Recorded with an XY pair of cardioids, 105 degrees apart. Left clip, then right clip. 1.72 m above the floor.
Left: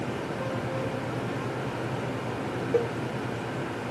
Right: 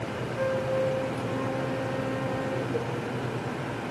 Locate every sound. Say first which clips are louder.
0.3 s a flute: right 9 dB; 55° right, 2.5 m
2.7 s a cowbell: left 5 dB; 50° left, 0.7 m